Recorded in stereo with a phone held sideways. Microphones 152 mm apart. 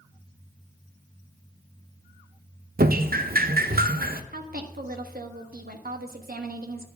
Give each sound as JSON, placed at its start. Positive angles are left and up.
{"t": 2.8, "sound": "dripping", "side_deg": -80, "distance_m": 0.5}
{"t": 4.3, "sound": "a woman speaking", "side_deg": -80, "distance_m": 1.3}